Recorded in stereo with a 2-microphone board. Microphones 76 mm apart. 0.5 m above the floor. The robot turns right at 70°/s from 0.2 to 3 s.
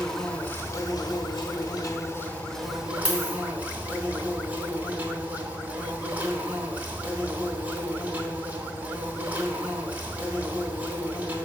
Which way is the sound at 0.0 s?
5° left.